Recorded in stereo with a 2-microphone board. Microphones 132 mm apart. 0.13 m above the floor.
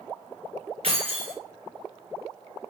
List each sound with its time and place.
0.8 s keys jangling: 50° right (ahead or behind), 1.7 m